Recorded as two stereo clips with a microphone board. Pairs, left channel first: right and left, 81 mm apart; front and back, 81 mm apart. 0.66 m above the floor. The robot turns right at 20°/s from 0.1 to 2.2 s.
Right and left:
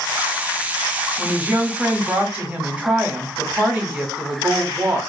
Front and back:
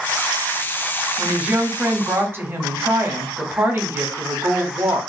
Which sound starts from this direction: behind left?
A woman speaking, at 1.2 s.